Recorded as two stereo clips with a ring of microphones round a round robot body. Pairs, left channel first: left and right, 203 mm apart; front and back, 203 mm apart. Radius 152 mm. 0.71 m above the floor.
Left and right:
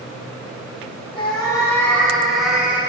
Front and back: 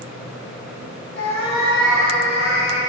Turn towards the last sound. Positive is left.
turn(degrees=-10)